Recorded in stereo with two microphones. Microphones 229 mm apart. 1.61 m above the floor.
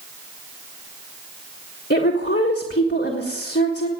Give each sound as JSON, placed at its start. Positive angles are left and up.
{"t": 1.9, "sound": "a woman speaking", "side_deg": 50, "distance_m": 1.6}